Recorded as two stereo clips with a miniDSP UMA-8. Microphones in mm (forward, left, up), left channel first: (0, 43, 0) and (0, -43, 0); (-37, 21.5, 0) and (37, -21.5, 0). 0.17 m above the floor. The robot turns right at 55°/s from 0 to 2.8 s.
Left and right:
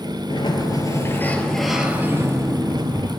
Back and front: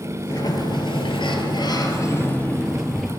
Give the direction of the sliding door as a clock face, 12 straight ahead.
9 o'clock.